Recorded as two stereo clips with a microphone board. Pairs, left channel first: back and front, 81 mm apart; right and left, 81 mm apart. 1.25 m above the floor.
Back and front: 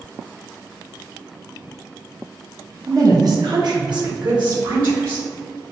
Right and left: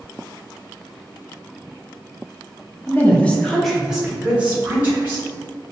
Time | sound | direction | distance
2.9 | a woman speaking | 35° right | 0.9 m